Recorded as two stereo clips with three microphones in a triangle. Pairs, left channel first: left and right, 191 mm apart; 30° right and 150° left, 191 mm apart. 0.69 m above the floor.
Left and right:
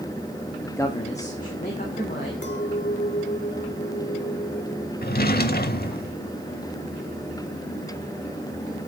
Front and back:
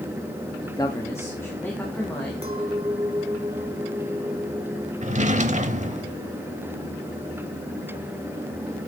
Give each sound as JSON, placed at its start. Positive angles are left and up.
{"t": 0.6, "sound": "a man speaking", "azimuth_deg": 0, "distance_m": 0.7}
{"t": 2.4, "sound": "a clink", "azimuth_deg": 95, "distance_m": 1.4}
{"t": 5.0, "sound": "a drawer", "azimuth_deg": 110, "distance_m": 0.7}